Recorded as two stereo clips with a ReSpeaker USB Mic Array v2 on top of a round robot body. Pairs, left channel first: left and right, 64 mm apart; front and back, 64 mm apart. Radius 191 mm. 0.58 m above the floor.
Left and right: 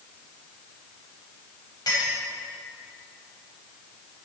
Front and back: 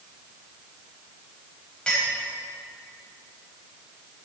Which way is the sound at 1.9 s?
80° left.